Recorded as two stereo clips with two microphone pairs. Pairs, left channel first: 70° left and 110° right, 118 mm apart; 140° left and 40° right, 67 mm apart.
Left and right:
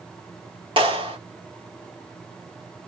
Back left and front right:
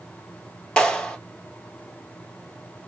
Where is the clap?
145° right, 2.0 m.